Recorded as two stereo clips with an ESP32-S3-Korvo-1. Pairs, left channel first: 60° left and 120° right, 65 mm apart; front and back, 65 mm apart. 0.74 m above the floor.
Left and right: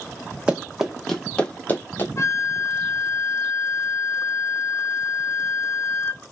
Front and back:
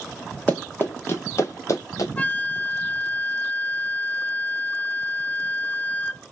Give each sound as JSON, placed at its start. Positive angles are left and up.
{"t": 0.5, "sound": "running footsteps", "azimuth_deg": -55, "distance_m": 0.9}
{"t": 2.2, "sound": "a flute", "azimuth_deg": 55, "distance_m": 0.6}